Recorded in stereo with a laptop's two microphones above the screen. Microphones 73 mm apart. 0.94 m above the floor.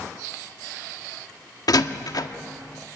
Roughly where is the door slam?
Left.